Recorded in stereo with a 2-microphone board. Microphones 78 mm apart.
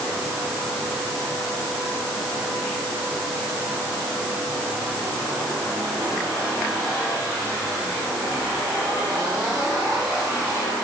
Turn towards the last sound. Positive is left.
No sound to turn to.